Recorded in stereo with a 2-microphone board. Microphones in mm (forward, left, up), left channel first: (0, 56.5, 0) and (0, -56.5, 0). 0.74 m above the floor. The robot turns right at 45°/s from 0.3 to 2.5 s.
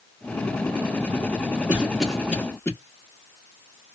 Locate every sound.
1.7 s a cough: 15° right (ahead or behind), 1.3 m; by 2.7 s 20° left (ahead or behind), 1.3 m